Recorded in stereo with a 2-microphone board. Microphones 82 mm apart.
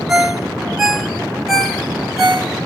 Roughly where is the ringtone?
Centre.